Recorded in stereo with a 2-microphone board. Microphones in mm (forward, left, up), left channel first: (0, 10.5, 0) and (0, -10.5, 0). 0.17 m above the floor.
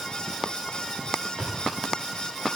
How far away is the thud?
About 9.5 m.